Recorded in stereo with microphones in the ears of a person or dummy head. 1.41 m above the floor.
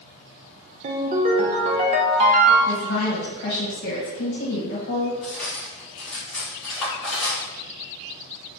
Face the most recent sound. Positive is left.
turn(degrees=5)  # may be behind; listen again after turning